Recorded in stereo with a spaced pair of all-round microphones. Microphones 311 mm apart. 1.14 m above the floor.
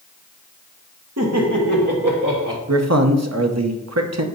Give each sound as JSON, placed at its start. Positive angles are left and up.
{"t": 1.2, "sound": "laughter", "side_deg": -55, "distance_m": 1.5}
{"t": 2.7, "sound": "a man speaking", "side_deg": -55, "distance_m": 0.9}